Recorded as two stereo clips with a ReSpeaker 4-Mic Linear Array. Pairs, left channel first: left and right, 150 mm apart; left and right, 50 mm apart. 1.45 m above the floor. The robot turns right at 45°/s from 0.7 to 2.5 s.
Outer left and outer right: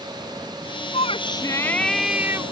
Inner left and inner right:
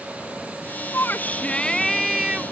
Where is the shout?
130° left; by 2.4 s 160° right.